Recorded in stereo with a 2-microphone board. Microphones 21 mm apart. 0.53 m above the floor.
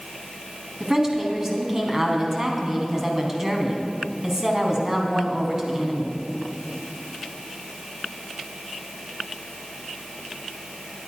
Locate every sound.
0.8 s a woman speaking: 25° right (ahead or behind), 3.5 m